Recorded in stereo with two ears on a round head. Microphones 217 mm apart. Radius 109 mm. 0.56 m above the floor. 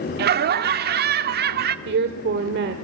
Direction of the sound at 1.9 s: 45° right (ahead or behind).